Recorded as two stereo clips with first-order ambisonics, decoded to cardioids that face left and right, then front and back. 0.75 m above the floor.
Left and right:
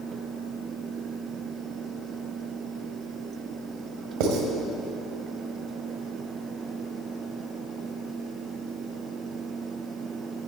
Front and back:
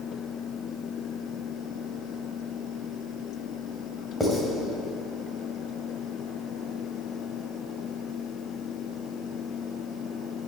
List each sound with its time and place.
4.2 s writing: 90° right, 1.8 m